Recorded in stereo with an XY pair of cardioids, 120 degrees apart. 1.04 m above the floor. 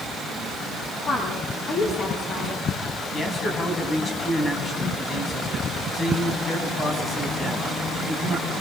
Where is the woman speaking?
40° left, 8.5 m.